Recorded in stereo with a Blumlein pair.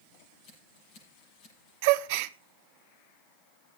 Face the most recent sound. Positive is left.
turn(degrees=-50)